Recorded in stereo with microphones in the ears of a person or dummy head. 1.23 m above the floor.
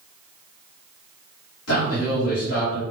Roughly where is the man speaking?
Left.